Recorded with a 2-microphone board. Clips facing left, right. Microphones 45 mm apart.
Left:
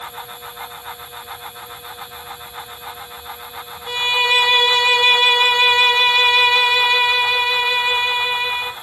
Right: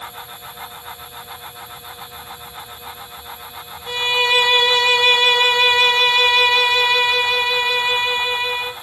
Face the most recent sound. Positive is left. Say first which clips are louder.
# even
turn(degrees=10)  # may be behind; listen again after turning